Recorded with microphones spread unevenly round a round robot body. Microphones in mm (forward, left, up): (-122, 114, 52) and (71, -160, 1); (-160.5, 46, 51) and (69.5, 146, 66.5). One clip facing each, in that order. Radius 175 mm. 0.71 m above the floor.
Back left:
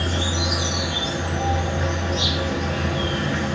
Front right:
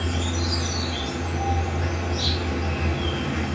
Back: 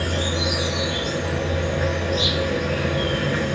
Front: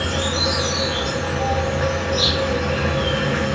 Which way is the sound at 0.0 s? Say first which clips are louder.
Back left 2 dB, front 1 dB; 105° left.